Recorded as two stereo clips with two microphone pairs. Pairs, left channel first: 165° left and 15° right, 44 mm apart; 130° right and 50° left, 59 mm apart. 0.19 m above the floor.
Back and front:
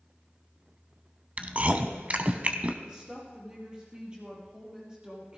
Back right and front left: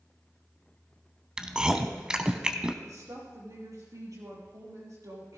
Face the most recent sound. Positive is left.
turn(degrees=55)